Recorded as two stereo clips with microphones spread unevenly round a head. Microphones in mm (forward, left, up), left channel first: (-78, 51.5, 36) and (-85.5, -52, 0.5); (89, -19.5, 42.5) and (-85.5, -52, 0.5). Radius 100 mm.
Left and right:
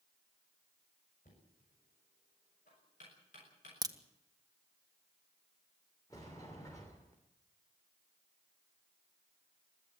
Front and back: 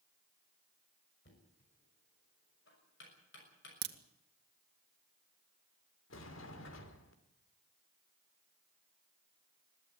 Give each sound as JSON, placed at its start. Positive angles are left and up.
{"t": 1.2, "sound": "knocking", "azimuth_deg": 50, "distance_m": 6.5}
{"t": 3.8, "sound": "a crack", "azimuth_deg": -150, "distance_m": 1.7}
{"t": 6.1, "sound": "a sliding door", "azimuth_deg": 15, "distance_m": 3.0}